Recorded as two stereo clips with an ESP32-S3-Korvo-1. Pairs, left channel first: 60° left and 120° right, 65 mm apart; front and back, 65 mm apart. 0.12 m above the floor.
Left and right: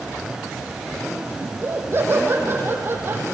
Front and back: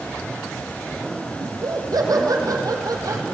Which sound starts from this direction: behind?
Laughter, at 1.4 s.